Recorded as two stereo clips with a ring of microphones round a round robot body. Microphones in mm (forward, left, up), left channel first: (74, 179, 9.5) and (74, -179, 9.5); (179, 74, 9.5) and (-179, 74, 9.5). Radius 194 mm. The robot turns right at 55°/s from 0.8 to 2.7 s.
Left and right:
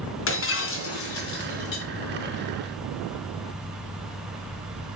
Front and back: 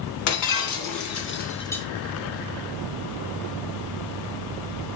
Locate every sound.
0.3 s breaking glass: 35° left, 2.5 m; by 1.9 s 90° left, 2.5 m